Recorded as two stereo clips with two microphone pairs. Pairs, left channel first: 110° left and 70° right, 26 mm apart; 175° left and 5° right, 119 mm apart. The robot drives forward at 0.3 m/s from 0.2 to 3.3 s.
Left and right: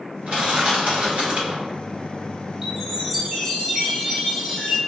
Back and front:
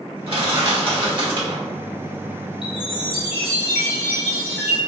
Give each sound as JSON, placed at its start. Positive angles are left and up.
{"t": 0.3, "sound": "crushing", "azimuth_deg": -45, "distance_m": 1.7}
{"t": 2.6, "sound": "a chime", "azimuth_deg": -140, "distance_m": 1.1}